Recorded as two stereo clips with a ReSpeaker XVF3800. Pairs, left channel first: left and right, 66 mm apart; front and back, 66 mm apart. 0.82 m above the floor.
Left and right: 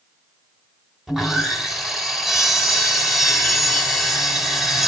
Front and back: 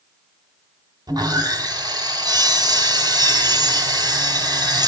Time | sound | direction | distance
1.1 | sawing | 170° right | 3.5 m